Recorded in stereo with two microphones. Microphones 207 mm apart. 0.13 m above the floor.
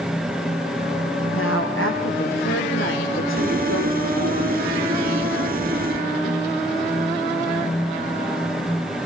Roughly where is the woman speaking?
Left.